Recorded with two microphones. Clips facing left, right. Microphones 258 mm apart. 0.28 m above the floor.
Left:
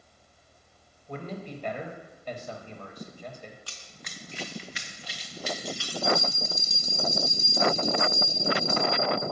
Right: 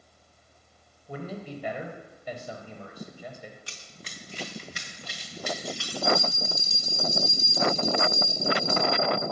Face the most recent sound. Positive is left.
turn(degrees=-35)  # may be behind; listen again after turning